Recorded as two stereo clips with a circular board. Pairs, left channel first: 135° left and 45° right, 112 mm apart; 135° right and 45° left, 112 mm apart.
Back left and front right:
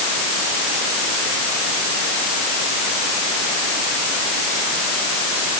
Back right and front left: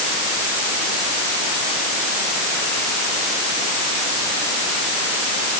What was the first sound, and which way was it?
Only background noise.